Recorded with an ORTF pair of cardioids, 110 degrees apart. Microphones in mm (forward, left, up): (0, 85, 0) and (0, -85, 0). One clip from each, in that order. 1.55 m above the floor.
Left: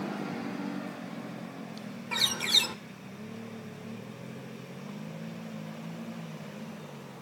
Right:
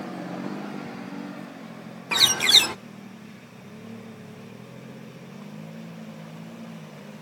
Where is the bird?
45° right, 0.7 m.